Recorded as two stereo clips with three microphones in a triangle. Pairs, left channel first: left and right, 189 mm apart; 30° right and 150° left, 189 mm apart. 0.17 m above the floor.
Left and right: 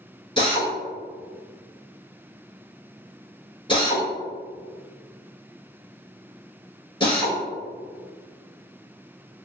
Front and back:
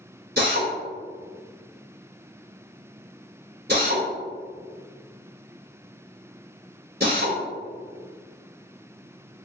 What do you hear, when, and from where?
0.4 s a drill: 150° left, 1.5 m